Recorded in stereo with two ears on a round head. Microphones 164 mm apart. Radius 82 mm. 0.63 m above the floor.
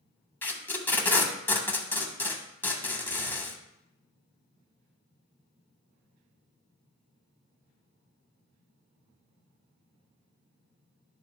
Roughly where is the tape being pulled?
Centre.